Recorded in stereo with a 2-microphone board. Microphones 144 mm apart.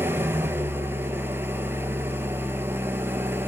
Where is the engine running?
15° right (ahead or behind), 0.8 m.